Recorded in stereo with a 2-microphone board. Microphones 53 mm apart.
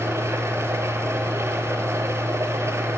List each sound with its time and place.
0.0 s an engine running: 65° right (ahead or behind), 0.8 m